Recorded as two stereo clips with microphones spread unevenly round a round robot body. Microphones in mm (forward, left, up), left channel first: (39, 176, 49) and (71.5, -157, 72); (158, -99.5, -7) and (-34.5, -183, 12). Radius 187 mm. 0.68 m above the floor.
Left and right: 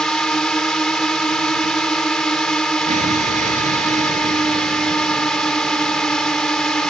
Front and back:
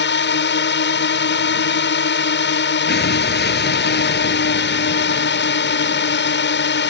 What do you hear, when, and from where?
0.0 s a drone: 10° left
2.9 s an explosion: 15° right